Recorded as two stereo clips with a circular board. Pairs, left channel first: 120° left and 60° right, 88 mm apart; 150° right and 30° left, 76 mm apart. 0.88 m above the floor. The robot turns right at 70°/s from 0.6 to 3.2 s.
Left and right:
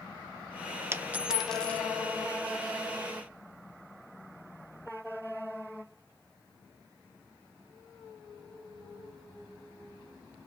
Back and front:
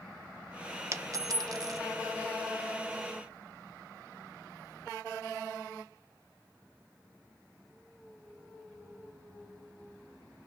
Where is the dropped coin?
10° right, 0.6 m; by 1.8 s 55° left, 0.6 m.